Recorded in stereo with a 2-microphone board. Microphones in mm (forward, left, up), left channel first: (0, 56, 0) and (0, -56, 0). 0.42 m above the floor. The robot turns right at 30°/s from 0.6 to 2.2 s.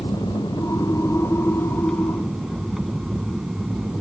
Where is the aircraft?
135° left; by 4.0 s 175° right.